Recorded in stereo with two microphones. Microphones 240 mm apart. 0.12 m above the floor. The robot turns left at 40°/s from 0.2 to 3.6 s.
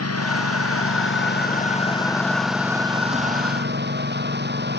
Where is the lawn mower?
90° left; by 4.8 s 45° right.